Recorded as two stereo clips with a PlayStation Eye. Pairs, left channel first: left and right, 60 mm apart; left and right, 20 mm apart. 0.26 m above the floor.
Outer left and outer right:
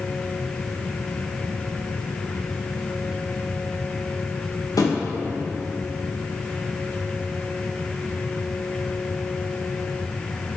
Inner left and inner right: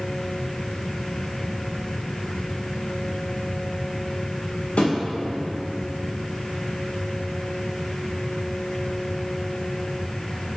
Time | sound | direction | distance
4.8 | a thud | 85° left | 3 m